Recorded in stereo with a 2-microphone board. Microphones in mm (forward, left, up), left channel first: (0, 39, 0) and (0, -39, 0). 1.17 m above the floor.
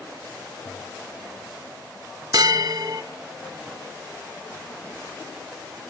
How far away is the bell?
About 1.1 m.